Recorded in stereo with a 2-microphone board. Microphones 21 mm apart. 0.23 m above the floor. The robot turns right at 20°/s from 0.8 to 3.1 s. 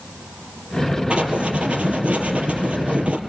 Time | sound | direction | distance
1.1 | writing | 120° right | 3.5 m